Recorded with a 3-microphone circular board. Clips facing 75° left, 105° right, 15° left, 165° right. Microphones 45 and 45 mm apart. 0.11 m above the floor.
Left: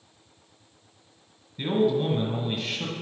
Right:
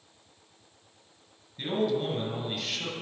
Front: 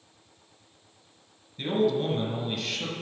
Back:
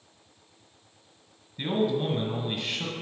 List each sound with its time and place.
1.6 s a man speaking: 155° left, 1.5 m